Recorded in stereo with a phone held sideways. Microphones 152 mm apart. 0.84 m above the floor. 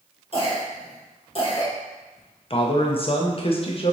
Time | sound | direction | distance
0.3 | a cough | 40° left (ahead or behind) | 1.1 m
2.5 | a man speaking | 40° left (ahead or behind) | 0.5 m